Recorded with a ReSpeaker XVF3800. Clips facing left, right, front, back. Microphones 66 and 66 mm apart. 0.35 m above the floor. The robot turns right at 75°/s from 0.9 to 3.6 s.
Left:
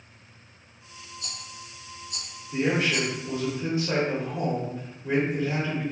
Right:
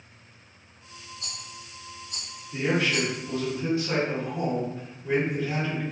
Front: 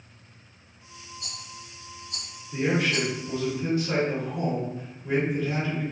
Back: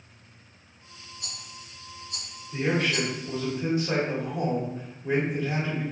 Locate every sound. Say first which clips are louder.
1.2 s a rattle: left 1 dB, front 1 dB; 120° right, 1.3 m; by 3.1 s 25° left, 1.3 m
2.5 s a man speaking: left 1 dB, front 1 dB; 60° left, 1.1 m; by 5.8 s 145° left, 1.1 m